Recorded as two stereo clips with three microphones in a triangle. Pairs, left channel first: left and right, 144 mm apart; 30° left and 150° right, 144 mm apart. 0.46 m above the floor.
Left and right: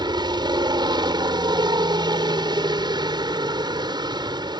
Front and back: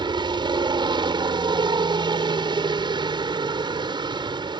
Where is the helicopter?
120° right.